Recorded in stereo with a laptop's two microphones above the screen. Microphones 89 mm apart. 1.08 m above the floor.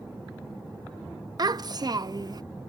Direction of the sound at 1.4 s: 50° right (ahead or behind).